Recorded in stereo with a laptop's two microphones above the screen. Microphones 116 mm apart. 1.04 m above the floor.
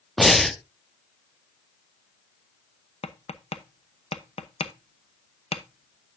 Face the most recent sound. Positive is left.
turn(degrees=70)  # may be behind; listen again after turning